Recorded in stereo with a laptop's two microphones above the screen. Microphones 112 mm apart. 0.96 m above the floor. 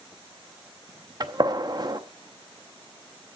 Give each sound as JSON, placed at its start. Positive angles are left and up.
{"t": 1.2, "sound": "a gunshot", "side_deg": -40, "distance_m": 0.6}